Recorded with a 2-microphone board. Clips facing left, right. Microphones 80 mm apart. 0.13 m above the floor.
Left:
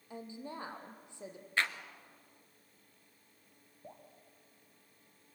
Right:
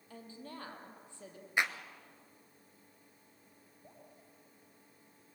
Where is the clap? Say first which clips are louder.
Right 1 dB; 15° right (ahead or behind), 1.3 m.